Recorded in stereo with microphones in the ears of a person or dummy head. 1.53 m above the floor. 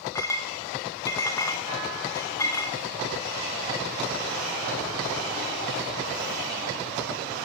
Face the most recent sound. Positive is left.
turn(degrees=10)  # may be behind; listen again after turning